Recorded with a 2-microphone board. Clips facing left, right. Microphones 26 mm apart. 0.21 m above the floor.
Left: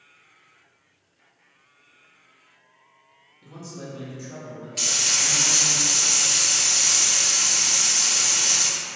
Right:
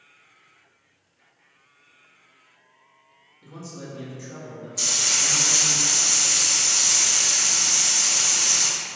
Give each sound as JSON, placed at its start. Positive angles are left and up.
{"t": 3.4, "sound": "a man speaking", "side_deg": 25, "distance_m": 1.0}
{"t": 4.8, "sound": "frying", "side_deg": 75, "distance_m": 1.1}